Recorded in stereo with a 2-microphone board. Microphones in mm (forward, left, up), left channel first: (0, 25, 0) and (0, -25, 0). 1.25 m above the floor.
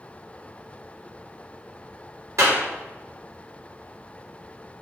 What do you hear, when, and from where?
2.4 s a clap: 75° right (ahead or behind), 4 m